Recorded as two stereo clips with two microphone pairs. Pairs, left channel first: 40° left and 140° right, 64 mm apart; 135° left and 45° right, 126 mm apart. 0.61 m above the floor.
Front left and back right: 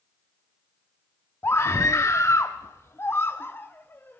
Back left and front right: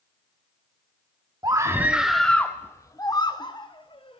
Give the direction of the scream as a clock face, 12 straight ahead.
12 o'clock.